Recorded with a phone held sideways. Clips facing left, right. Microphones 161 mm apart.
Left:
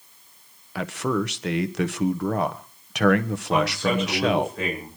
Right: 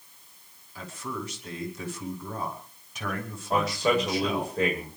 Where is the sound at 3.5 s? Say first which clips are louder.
Left 1 dB; 35° right (ahead or behind), 9 m.